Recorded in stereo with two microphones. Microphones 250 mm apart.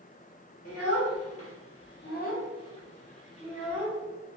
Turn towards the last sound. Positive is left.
turn(degrees=-15)  # may be behind; listen again after turning